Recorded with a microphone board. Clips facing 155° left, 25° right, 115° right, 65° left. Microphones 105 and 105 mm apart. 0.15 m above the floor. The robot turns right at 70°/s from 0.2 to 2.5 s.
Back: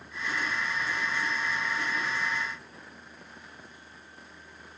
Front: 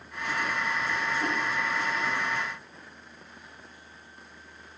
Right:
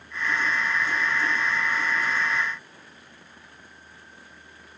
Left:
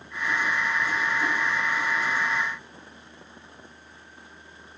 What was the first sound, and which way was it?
Only background noise.